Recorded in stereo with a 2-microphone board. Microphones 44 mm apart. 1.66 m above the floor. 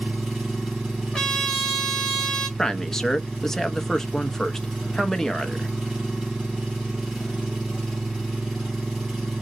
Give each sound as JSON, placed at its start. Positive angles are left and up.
{"t": 0.0, "sound": "an engine running", "side_deg": -5, "distance_m": 2.5}
{"t": 1.1, "sound": "a trumpet", "side_deg": 10, "distance_m": 2.5}
{"t": 2.6, "sound": "a man speaking", "side_deg": 10, "distance_m": 0.6}